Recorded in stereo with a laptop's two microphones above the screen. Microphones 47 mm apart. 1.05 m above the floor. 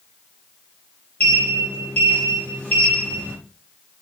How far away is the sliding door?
About 4.5 m.